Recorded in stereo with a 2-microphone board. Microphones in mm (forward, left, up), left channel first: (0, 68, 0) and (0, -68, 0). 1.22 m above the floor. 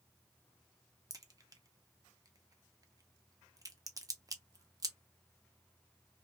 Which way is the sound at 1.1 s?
25° right (ahead or behind).